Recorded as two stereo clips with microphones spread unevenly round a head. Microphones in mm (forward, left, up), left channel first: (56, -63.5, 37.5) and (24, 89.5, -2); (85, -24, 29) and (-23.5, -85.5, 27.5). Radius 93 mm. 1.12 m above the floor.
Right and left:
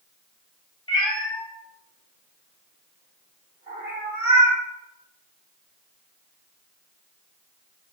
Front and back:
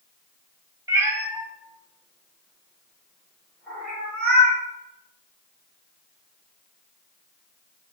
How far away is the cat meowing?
About 0.7 m.